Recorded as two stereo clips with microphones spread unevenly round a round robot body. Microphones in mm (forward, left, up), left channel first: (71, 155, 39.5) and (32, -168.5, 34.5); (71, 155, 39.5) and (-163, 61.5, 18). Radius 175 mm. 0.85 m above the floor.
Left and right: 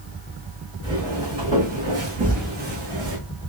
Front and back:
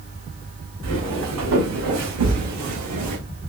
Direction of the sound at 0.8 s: 175° right.